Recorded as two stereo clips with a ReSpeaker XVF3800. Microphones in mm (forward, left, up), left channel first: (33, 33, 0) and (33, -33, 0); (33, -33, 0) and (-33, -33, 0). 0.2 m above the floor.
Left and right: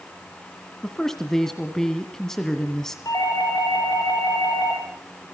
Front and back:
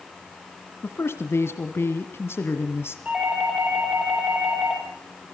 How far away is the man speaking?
About 1.3 m.